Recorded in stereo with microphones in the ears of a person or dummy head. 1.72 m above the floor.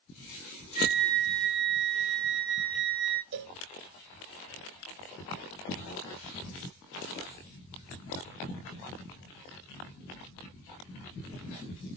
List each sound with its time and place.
0.8 s a flute: 5° right (ahead or behind), 1.3 m
3.3 s a cowbell: 60° right (ahead or behind), 0.6 m